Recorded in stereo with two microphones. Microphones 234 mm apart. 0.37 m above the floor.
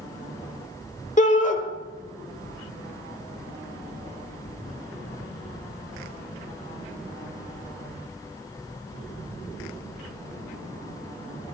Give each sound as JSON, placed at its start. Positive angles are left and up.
{"t": 1.2, "sound": "a shout", "side_deg": 30, "distance_m": 1.2}